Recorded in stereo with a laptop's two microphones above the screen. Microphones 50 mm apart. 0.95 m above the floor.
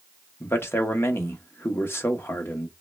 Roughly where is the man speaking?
Left.